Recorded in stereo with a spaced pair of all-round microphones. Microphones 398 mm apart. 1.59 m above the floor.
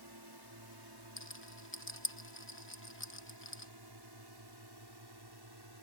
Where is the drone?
75° right (ahead or behind); by 5.8 s 80° right.